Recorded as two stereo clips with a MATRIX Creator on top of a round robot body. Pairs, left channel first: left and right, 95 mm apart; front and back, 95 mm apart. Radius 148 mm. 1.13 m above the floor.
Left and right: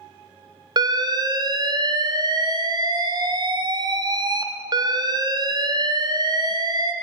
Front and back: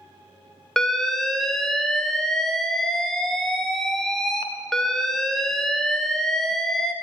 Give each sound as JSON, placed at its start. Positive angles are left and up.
{"t": 0.8, "sound": "an alarm", "azimuth_deg": -85, "distance_m": 1.2}